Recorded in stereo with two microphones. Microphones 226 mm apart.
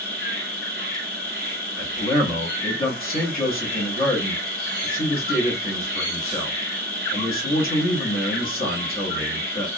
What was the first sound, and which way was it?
An insect, 45° right (ahead or behind).